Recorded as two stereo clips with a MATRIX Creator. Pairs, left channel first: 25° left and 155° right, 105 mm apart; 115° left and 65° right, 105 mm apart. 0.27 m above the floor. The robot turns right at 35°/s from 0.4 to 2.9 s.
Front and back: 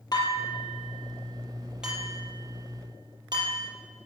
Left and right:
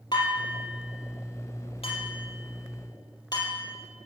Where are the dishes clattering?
70° left, 4 m; by 3.7 s 155° left, 4 m.